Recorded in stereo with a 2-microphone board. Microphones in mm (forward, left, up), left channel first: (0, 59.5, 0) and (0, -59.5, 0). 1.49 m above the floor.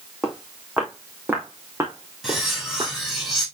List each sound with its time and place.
0.2 s footsteps: centre (ahead or behind), 4 m; by 2.9 s 35° right (ahead or behind), 5 m
2.2 s cutlery clinking: centre (ahead or behind), 6 m